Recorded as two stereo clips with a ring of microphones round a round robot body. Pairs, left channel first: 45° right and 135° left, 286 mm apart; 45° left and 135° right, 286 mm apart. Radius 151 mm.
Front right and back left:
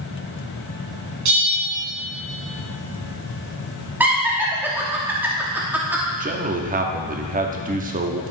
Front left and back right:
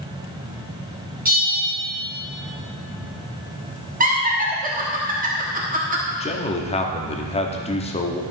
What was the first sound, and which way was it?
A bell, 165° left.